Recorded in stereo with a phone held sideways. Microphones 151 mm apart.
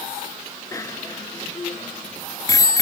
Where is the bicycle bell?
20° left (ahead or behind); by 2.8 s 25° left (ahead or behind).